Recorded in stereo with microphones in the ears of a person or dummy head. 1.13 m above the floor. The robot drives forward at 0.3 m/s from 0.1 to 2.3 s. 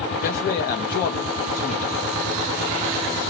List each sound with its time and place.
0.2 s a man speaking: 45° left (ahead or behind), 0.8 m